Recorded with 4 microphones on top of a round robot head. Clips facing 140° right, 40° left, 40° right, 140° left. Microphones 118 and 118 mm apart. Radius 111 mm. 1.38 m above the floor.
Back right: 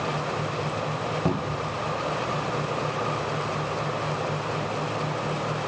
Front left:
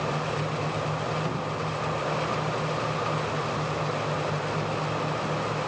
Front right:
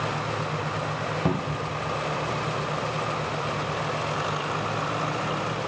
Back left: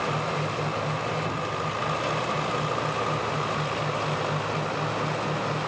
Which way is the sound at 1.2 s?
90° right.